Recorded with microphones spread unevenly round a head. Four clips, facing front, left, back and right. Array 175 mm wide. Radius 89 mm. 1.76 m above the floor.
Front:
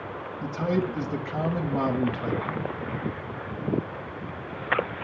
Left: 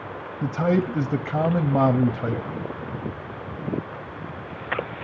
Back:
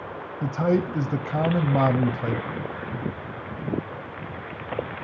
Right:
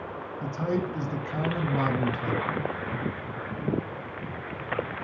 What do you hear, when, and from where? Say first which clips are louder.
0.4 s a man speaking: left 7 dB, back 4 dB; 120° left, 0.5 m